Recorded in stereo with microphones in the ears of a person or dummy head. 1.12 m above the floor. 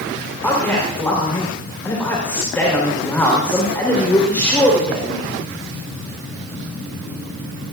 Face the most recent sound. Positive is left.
turn(degrees=10)  # may be behind; listen again after turning